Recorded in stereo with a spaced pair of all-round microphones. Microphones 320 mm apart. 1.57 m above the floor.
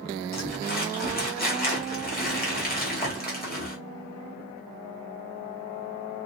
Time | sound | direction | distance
0.3 | crumpling | 30° left (ahead or behind) | 2.5 m